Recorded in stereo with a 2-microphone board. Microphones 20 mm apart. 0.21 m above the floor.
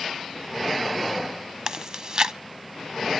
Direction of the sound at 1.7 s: 40° right (ahead or behind).